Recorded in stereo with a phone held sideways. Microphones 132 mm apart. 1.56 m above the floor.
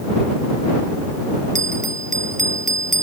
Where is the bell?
75° right (ahead or behind).